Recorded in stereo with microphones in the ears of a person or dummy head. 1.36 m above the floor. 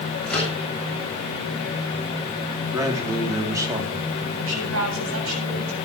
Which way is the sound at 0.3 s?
5° left (ahead or behind).